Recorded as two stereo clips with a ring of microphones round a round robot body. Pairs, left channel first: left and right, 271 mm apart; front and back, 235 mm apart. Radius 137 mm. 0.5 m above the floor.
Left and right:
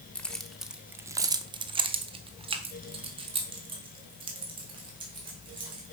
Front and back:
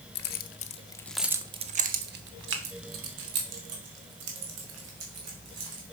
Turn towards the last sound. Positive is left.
turn(degrees=-160)